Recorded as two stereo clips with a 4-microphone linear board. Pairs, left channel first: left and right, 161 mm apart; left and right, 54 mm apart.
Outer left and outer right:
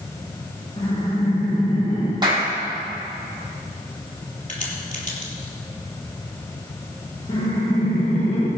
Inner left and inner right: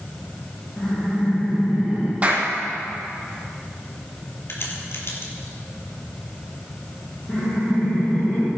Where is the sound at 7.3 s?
40° left (ahead or behind), 3 m.